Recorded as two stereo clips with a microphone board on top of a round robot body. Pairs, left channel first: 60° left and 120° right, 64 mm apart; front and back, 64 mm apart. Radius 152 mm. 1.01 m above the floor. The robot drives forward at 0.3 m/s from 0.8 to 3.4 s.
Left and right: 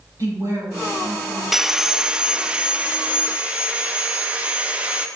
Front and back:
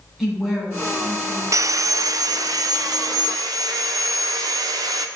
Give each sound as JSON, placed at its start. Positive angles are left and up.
{"t": 0.2, "sound": "a woman speaking", "azimuth_deg": -100, "distance_m": 5.0}
{"t": 1.5, "sound": "sawing", "azimuth_deg": 155, "distance_m": 0.5}